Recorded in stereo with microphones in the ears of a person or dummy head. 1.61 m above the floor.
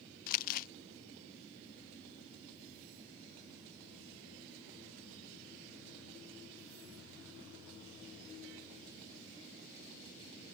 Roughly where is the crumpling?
Left.